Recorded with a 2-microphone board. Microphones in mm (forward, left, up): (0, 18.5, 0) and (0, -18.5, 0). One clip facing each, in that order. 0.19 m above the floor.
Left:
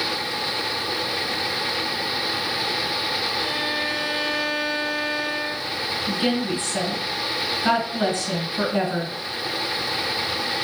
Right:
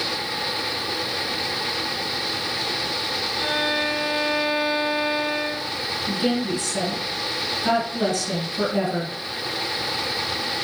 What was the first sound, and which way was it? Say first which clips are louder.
A violin: right 2 dB; 35° right (ahead or behind).